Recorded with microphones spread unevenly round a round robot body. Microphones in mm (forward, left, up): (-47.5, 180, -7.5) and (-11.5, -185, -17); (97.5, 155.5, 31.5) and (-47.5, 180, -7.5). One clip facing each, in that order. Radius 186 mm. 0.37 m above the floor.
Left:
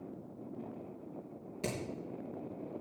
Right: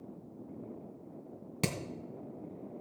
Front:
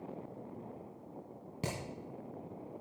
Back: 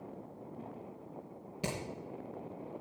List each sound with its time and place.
1.6 s hammering: 80° right, 2.5 m